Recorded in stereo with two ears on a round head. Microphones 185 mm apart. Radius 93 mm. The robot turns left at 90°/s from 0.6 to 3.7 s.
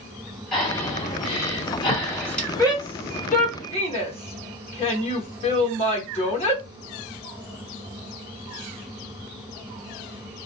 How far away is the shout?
About 1.0 m.